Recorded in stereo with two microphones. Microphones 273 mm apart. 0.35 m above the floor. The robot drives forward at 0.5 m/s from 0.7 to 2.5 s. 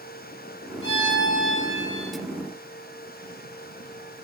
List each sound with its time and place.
0.8 s a violin: 40° left (ahead or behind), 4 m; by 2.2 s 50° left (ahead or behind), 3.5 m